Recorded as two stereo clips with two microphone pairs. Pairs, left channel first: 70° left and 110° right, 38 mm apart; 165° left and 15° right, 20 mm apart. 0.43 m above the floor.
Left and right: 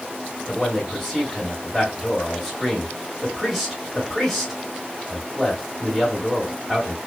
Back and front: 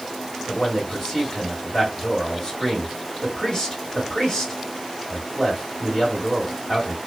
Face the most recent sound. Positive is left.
turn(degrees=165)